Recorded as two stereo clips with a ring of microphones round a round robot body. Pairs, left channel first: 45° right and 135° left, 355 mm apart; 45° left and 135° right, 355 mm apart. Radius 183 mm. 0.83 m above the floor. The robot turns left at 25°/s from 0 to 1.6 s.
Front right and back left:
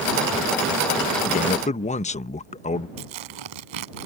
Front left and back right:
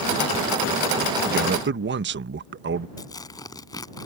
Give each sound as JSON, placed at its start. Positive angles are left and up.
{"t": 1.2, "sound": "a man speaking", "azimuth_deg": -95}
{"t": 3.0, "sound": "tearing paper", "azimuth_deg": 125}